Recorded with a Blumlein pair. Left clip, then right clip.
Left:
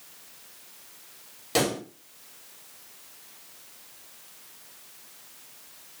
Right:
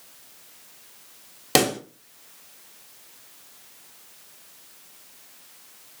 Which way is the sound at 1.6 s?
30° right.